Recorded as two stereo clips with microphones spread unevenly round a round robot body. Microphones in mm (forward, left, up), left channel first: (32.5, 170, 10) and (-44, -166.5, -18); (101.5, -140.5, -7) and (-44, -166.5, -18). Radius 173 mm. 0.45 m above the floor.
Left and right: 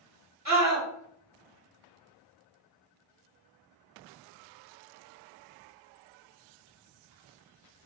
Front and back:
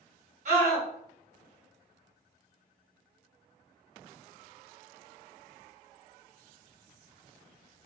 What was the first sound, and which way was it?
A scream, 145° left.